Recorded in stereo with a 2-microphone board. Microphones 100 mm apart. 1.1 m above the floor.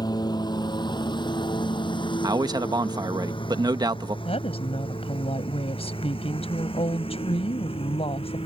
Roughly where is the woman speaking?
Left.